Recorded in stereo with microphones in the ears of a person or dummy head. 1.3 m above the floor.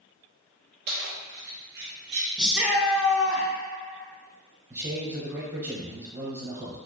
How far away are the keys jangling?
About 0.5 m.